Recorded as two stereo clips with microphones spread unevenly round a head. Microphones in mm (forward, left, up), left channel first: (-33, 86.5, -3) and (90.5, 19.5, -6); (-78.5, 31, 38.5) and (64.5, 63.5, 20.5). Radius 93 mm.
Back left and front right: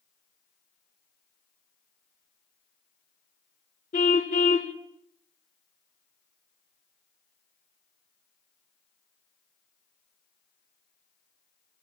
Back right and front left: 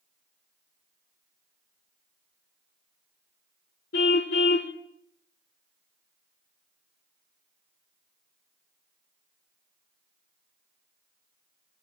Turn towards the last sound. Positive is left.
turn(degrees=-160)